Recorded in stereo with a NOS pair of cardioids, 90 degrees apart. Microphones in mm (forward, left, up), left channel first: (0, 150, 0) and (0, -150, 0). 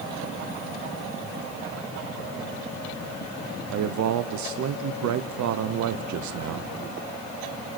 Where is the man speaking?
70° right, 0.9 m.